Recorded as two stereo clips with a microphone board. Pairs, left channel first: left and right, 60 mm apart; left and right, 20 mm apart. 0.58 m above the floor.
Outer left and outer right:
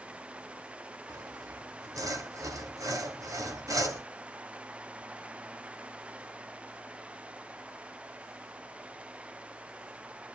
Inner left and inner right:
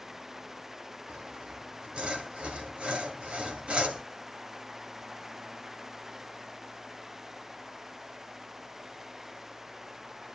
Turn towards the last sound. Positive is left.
turn(degrees=-65)  # may be behind; listen again after turning